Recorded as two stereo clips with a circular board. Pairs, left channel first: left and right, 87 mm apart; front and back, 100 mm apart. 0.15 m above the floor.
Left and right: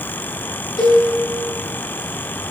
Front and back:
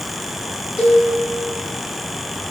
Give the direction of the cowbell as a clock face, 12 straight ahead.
8 o'clock.